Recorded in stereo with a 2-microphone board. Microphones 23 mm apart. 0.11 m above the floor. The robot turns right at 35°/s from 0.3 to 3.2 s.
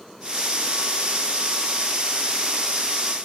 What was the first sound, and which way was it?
Only background noise.